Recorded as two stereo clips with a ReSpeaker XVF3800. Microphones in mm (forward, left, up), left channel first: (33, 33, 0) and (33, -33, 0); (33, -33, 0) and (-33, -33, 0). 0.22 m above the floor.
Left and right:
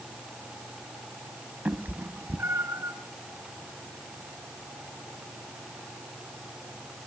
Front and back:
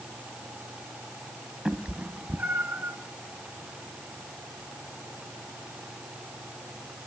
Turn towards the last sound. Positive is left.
turn(degrees=-125)